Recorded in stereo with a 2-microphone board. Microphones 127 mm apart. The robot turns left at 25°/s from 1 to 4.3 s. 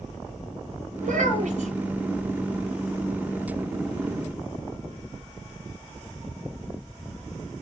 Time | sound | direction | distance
1.0 | a child speaking | 80° right | 1.7 m